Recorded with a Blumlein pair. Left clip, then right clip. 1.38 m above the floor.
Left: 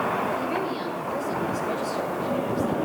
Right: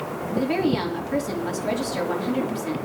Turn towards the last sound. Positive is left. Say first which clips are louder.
# right 4 dB
turn(degrees=-40)